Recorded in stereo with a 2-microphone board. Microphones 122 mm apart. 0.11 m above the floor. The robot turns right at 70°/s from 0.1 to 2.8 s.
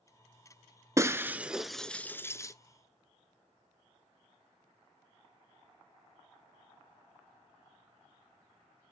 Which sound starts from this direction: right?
Breaking glass, at 1.0 s.